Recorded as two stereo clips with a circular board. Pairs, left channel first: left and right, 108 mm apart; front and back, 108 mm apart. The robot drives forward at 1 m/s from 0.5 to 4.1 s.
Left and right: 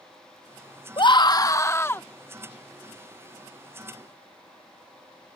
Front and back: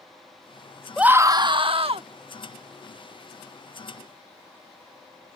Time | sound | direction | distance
1.0 | a scream | 100° left | ?